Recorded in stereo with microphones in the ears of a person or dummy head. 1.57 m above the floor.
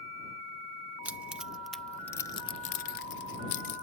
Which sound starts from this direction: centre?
Keys jangling, at 1.1 s.